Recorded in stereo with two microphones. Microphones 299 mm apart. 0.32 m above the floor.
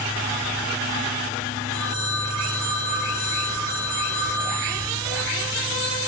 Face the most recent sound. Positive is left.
turn(degrees=65)  # may be behind; listen again after turning